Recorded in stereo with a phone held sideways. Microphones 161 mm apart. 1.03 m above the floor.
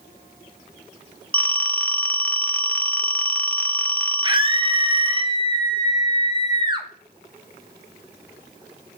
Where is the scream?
25° right (ahead or behind), 1.3 m.